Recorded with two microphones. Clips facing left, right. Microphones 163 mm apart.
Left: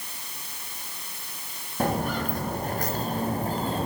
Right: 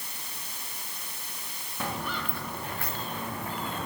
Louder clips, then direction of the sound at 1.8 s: Left 8 dB; 45° left (ahead or behind).